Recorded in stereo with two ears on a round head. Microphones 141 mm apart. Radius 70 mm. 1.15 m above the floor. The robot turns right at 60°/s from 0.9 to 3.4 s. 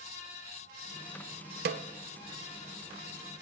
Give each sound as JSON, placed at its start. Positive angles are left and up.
{"t": 1.6, "sound": "a snare drum", "side_deg": -65, "distance_m": 0.6}